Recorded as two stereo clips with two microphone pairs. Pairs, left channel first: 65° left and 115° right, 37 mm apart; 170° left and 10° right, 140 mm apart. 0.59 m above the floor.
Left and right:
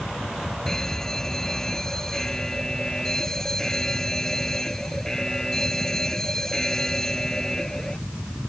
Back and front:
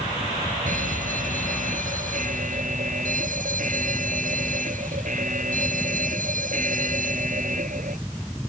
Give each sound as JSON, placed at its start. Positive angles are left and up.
{"t": 0.7, "sound": "an alarm", "azimuth_deg": -10}